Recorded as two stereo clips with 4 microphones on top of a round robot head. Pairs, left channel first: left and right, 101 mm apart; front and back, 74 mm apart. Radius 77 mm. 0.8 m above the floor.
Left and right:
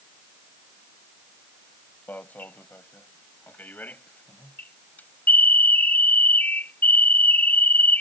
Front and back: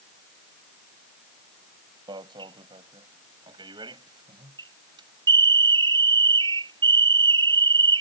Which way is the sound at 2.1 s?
165° left.